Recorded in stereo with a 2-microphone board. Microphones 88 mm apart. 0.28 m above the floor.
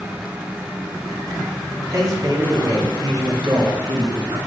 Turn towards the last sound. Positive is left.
turn(degrees=-70)  # may be behind; listen again after turning